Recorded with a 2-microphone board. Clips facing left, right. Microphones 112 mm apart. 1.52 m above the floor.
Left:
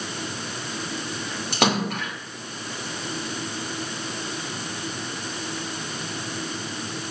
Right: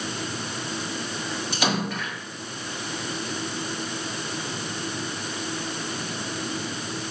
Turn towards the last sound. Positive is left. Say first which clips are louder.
# left 4 dB
turn(degrees=65)  # may be behind; listen again after turning